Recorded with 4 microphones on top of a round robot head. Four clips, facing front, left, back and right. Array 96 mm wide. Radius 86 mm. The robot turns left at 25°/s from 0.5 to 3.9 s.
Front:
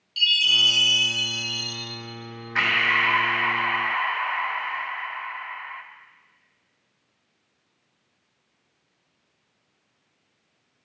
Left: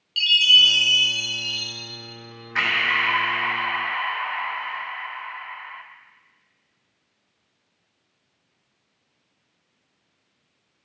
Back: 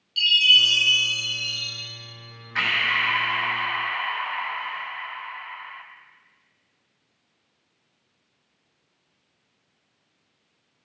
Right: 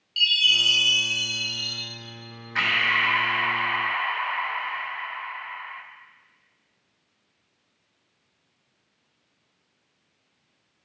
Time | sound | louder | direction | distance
0.2 | a chime | left 5 dB, back 3 dB | 90° left | 3 m
2.5 | breathing | left 1 dB, front 2 dB | 45° left | 1.0 m